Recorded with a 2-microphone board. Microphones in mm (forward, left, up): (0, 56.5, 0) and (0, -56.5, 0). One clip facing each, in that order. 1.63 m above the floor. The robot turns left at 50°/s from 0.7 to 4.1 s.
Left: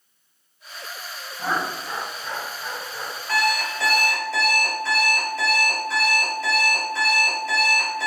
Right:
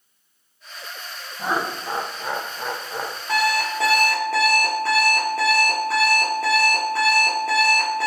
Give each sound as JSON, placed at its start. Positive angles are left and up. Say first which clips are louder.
{"t": 1.4, "sound": "laughter", "louder": "right 1 dB", "azimuth_deg": -10, "distance_m": 1.0}
{"t": 3.3, "sound": "an alarm clock", "louder": "right 2 dB", "azimuth_deg": -20, "distance_m": 3.0}